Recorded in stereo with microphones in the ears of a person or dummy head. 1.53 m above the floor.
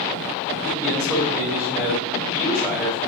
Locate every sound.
0.6 s a man speaking: 10° right (ahead or behind), 1.9 m